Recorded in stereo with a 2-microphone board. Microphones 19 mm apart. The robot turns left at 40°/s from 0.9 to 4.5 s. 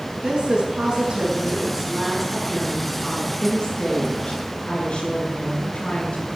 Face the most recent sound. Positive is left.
turn(degrees=100)